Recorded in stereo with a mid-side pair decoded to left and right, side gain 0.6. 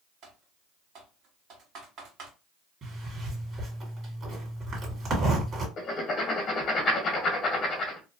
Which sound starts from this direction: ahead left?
Writing, at 5.8 s.